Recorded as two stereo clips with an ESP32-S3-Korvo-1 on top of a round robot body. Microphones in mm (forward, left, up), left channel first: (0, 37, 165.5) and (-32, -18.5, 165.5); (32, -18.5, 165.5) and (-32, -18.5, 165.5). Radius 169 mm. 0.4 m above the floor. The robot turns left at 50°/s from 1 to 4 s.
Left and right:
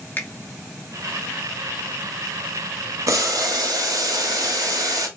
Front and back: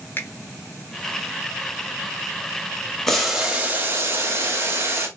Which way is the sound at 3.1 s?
85° right.